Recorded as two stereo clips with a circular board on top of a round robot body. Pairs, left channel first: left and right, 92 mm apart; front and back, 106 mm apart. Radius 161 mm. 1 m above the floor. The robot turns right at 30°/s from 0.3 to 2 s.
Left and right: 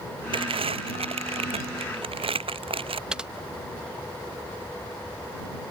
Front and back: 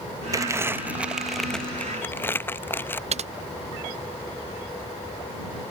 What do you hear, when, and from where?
0.3 s crumpling: 120° right; by 3.0 s 70° right
3.1 s typing on a keyboard: 170° right